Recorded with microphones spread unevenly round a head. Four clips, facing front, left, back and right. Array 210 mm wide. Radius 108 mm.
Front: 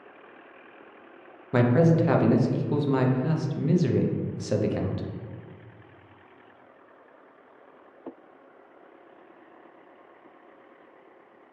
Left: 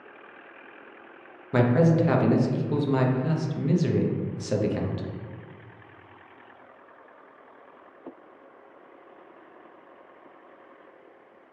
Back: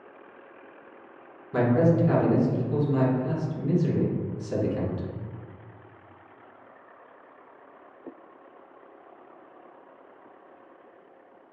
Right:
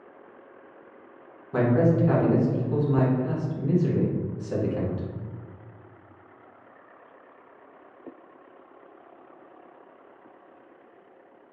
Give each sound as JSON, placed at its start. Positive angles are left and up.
{"t": 1.5, "sound": "a man speaking", "azimuth_deg": 40, "distance_m": 0.5}